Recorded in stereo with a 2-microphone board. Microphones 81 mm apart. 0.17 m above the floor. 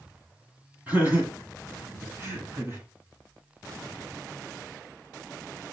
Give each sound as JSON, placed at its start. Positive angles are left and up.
{"t": 0.9, "sound": "laughter", "side_deg": -20, "distance_m": 1.6}